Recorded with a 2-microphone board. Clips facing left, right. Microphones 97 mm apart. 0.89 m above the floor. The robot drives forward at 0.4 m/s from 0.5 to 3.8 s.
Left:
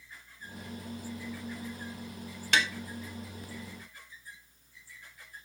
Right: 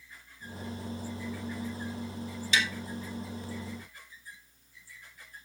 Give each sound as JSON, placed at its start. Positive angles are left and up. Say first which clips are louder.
{"t": 2.5, "sound": "tapping", "louder": "left 1 dB", "side_deg": 65, "distance_m": 1.9}